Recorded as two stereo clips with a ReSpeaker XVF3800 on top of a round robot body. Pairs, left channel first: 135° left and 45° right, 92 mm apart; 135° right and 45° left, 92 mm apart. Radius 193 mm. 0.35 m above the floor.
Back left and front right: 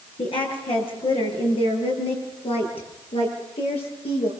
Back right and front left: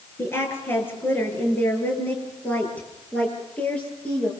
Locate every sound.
0.2 s a woman speaking: 160° left, 8.5 m; by 4.3 s 145° left, 11.5 m